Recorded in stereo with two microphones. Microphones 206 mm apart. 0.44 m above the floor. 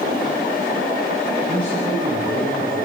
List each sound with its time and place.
1.5 s a man speaking: 35° right (ahead or behind), 9.5 m